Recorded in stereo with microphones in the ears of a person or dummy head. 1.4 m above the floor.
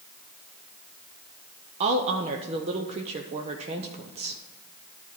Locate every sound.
1.8 s a woman speaking: 30° right (ahead or behind), 0.6 m